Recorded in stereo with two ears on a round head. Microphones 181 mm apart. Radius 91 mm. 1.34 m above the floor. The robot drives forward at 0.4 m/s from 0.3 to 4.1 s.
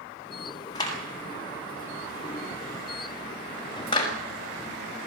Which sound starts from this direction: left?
A clap, at 0.8 s.